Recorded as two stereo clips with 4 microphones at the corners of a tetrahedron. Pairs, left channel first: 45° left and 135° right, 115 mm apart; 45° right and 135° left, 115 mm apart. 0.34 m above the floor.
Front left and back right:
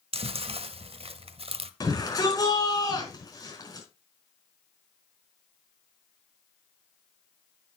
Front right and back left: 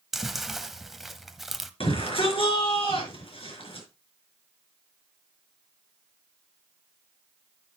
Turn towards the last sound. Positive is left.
turn(degrees=-10)